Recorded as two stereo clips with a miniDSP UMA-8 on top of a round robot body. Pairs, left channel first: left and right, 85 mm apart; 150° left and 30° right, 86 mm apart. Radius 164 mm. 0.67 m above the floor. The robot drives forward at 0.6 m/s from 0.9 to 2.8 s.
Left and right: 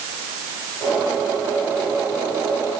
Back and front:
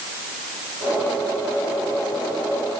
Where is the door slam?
No door slam in this recording.